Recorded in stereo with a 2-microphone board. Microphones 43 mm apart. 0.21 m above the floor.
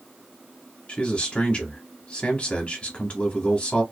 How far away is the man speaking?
About 1.1 m.